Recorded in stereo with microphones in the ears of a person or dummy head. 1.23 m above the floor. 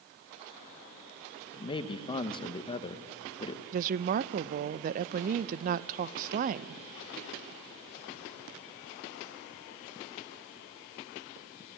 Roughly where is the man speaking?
Left.